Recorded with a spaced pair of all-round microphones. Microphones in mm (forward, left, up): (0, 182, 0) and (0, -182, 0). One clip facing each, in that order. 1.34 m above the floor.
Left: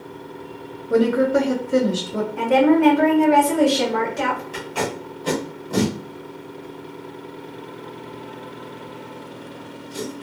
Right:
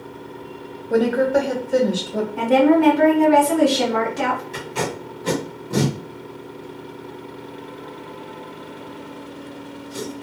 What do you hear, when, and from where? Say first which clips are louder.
0.9 s a woman speaking: left 1 dB; 5° left (ahead or behind), 0.7 m
2.4 s a woman speaking: right 1 dB; 50° right (ahead or behind), 1.4 m
4.5 s tape being pulled: even; 35° right (ahead or behind), 1.2 m